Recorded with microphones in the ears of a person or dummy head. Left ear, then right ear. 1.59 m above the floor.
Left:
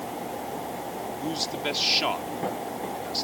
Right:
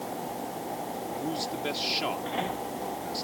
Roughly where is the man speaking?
Left.